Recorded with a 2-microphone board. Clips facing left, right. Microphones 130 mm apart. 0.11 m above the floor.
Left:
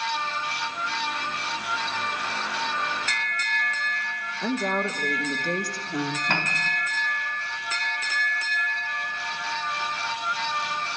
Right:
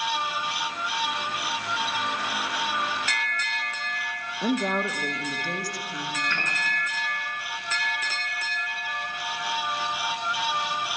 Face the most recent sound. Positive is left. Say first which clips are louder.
# left 3 dB
turn(degrees=60)  # may be behind; listen again after turning